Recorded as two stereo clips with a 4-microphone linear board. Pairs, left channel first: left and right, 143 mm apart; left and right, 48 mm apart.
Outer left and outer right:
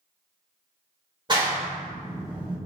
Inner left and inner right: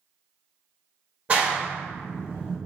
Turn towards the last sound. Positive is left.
turn(degrees=-30)  # may be behind; listen again after turning